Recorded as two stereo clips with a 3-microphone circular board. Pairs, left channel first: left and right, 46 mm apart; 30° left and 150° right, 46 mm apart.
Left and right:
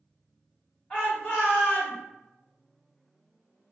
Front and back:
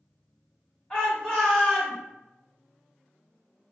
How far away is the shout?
About 1.3 m.